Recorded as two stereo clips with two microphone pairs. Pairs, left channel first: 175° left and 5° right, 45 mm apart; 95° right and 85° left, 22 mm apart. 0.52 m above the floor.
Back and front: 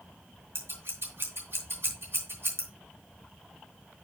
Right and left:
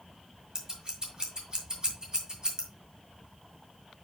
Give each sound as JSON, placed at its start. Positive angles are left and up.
{"t": 0.6, "sound": "scissors", "azimuth_deg": 30, "distance_m": 2.5}